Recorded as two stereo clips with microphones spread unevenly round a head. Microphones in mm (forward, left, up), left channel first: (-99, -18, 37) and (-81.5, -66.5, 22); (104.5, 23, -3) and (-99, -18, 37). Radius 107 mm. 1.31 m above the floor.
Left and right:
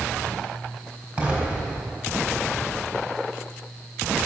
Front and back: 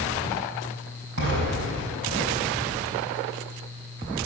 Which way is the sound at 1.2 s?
130° right.